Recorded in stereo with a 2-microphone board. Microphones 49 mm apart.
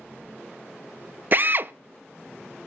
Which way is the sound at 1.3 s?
45° right (ahead or behind).